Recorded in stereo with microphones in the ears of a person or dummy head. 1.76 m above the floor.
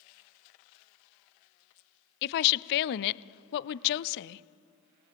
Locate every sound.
2.2 s a woman speaking: 60° left (ahead or behind), 0.6 m